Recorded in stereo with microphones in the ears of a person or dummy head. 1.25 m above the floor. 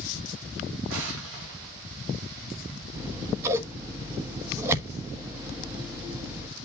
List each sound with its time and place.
0.9 s an explosion: 85° right, 4 m
3.0 s scissors: 20° right (ahead or behind), 1.3 m